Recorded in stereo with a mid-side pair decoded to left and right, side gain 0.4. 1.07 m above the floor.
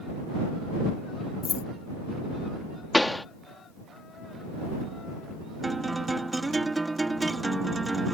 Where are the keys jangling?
60° left.